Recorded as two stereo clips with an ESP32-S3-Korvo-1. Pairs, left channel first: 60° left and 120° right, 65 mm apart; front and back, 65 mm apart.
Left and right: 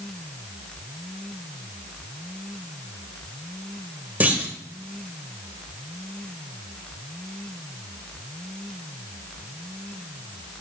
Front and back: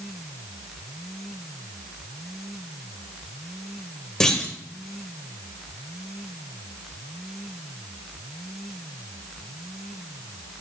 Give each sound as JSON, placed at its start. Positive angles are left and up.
{"t": 4.2, "sound": "a clunk", "azimuth_deg": -75, "distance_m": 1.2}